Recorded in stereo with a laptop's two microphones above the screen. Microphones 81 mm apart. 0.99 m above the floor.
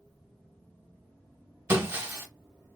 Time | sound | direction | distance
1.7 | breaking glass | 30° right (ahead or behind) | 0.9 m